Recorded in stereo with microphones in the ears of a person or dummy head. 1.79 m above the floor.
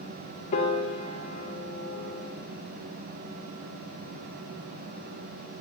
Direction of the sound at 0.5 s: 40° left (ahead or behind).